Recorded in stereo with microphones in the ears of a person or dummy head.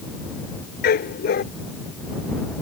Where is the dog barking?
50° left (ahead or behind).